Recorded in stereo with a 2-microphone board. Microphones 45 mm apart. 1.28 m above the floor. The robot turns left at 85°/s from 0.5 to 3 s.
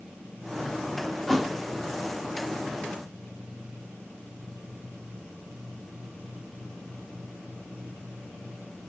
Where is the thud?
5° left (ahead or behind), 0.8 m; by 1.6 s 10° right (ahead or behind), 0.8 m.